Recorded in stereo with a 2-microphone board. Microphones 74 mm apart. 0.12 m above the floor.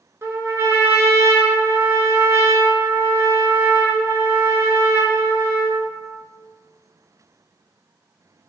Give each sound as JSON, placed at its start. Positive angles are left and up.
{"t": 0.2, "sound": "a trumpet", "side_deg": -35, "distance_m": 0.5}